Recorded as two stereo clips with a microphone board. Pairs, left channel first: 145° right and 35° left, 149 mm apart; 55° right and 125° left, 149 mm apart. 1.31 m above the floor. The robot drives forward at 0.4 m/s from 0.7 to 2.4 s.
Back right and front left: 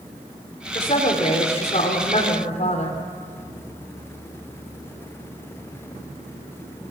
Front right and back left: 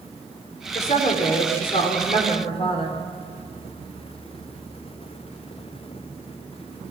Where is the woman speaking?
100° right, 4.5 m; by 3.0 s 105° right, 4.5 m.